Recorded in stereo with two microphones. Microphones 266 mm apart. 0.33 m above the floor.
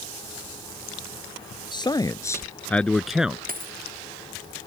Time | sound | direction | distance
1.7 | a man speaking | 15° left (ahead or behind) | ?
3.5 | a dropped coin | 30° right (ahead or behind) | ?